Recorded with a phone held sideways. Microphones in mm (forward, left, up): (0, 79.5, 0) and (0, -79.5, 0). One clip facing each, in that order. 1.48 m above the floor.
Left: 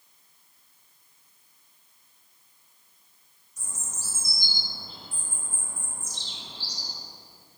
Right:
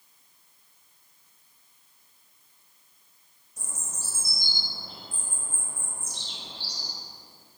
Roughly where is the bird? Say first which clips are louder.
Right 1 dB; right.